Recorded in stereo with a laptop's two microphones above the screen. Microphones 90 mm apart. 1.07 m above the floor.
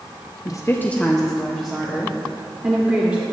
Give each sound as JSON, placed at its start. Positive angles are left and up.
{"t": 0.5, "sound": "a woman speaking", "side_deg": 45, "distance_m": 0.6}